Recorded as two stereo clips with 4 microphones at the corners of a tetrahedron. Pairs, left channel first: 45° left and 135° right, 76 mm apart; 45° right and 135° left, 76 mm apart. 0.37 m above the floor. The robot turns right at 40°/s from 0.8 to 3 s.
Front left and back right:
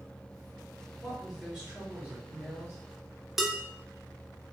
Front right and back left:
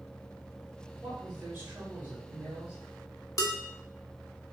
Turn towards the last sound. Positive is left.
turn(degrees=-50)